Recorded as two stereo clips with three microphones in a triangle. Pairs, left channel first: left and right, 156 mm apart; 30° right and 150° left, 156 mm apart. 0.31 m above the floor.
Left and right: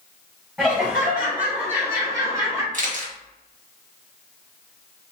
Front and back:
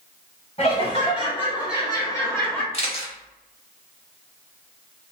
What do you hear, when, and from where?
0.6 s laughter: 5° right, 1.7 m; by 2.6 s 95° right, 1.3 m
2.7 s a camera shutter: 75° right, 0.8 m